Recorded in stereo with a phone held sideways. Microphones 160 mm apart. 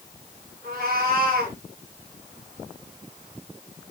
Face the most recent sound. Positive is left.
turn(degrees=-70)  # may be behind; listen again after turning